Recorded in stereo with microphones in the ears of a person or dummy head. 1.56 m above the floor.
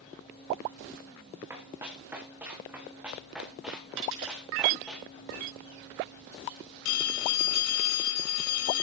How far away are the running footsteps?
About 7.5 m.